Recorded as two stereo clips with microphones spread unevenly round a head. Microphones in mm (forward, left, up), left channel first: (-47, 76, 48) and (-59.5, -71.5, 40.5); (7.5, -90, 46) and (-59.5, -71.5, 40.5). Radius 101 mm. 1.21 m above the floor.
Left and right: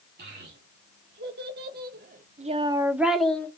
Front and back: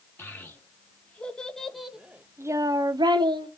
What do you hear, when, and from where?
0.2 s a child speaking: 75° right, 2.5 m; by 3.5 s 165° left, 1.2 m